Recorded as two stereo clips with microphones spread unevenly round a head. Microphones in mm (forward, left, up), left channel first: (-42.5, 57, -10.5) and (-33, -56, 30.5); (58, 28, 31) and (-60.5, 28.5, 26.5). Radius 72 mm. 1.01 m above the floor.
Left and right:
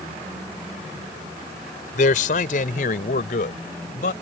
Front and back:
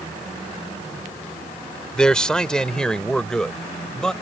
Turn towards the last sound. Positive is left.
turn(degrees=85)